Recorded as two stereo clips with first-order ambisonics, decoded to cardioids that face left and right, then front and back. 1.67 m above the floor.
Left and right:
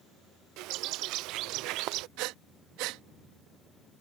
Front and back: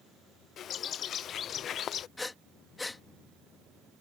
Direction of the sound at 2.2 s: 80° right.